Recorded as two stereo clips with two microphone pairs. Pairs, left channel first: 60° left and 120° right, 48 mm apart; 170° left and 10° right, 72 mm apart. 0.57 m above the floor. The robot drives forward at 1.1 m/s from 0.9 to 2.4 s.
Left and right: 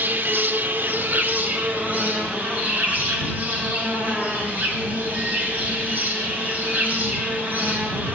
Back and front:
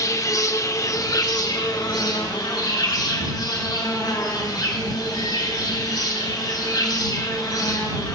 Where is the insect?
155° right, 0.8 m; by 8.2 s 175° right, 2.5 m.